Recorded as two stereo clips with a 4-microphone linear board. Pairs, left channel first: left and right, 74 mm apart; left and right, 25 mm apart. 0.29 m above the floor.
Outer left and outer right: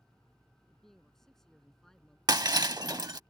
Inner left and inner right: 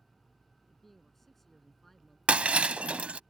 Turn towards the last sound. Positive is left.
turn(degrees=-70)  # may be behind; listen again after turning